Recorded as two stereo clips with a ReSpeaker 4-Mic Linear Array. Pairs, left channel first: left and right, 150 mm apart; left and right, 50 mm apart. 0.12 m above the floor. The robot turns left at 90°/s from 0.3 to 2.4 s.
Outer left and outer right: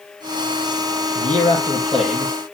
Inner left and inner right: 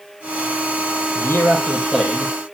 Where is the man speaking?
75° left, 3.5 m; by 2.4 s 35° right, 3.5 m.